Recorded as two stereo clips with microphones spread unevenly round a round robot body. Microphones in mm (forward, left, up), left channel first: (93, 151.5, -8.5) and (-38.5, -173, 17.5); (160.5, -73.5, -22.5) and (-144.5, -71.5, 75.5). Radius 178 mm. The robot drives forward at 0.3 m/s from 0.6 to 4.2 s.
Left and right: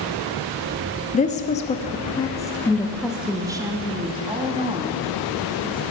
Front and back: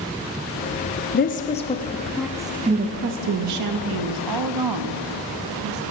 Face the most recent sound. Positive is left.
turn(degrees=170)